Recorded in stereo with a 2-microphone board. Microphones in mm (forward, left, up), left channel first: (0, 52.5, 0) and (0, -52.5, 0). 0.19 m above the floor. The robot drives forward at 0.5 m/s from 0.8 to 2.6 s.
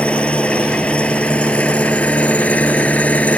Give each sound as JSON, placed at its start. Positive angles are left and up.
{"t": 0.0, "sound": "an engine running", "side_deg": 10}